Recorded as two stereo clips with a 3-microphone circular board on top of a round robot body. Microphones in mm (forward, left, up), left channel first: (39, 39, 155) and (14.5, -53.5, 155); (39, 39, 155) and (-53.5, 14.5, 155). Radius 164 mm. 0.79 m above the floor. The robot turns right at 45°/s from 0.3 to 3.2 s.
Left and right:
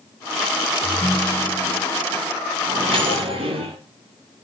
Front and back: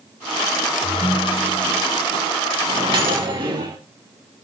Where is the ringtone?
135° left, 2 m; by 1.9 s 175° right, 2 m.